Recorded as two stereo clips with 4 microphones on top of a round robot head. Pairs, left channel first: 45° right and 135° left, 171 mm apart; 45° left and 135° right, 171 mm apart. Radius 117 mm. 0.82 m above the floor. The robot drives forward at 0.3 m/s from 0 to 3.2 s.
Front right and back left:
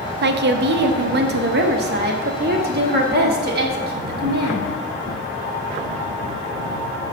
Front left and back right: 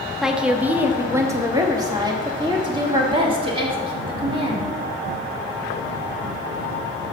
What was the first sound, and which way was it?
A woman speaking, 135° left.